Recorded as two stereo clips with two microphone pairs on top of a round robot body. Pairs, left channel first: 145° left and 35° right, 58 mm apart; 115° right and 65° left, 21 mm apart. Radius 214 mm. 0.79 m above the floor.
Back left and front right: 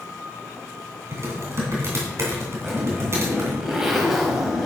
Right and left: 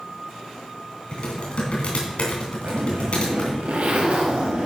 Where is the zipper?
45° left, 0.9 m.